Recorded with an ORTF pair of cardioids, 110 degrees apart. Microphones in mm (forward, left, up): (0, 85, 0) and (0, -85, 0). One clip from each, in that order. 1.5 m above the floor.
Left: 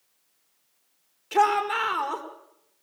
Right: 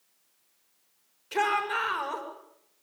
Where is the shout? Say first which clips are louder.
Left 5 dB; 30° left, 5.5 m.